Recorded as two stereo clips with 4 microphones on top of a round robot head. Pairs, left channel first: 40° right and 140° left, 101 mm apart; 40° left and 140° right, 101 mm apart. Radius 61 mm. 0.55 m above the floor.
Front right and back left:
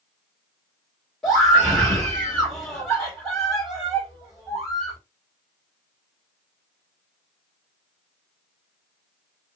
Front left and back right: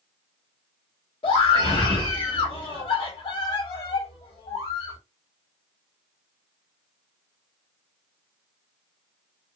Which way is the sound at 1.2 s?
40° left.